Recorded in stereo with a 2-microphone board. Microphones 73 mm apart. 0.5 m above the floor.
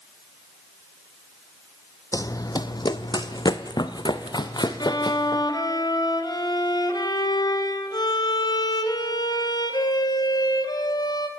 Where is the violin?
65° left (ahead or behind), 3 m.